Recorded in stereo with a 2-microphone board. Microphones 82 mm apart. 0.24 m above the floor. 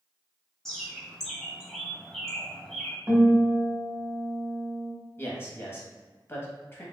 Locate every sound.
0.7 s a bird: 5° left (ahead or behind), 1.0 m
3.1 s a guitar: 25° right (ahead or behind), 1.4 m
5.2 s a man speaking: 30° left (ahead or behind), 1.1 m